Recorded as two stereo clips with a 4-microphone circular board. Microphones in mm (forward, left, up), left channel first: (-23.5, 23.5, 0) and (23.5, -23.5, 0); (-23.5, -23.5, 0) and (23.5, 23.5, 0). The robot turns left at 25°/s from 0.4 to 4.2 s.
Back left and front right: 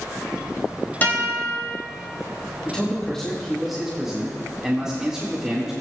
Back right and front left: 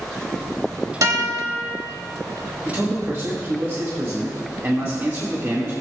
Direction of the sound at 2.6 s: 65° left.